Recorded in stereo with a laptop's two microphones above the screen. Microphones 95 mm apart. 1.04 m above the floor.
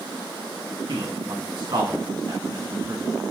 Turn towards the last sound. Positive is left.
turn(degrees=-50)  # may be behind; listen again after turning